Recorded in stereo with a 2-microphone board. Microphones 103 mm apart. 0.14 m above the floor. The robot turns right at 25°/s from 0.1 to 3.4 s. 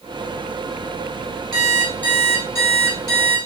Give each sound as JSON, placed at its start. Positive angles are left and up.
{"t": 1.5, "sound": "an alarm clock", "azimuth_deg": 5, "distance_m": 4.0}